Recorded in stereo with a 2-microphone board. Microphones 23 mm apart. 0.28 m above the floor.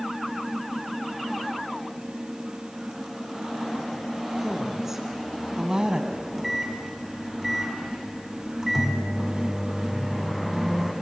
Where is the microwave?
5° right (ahead or behind), 1.9 m.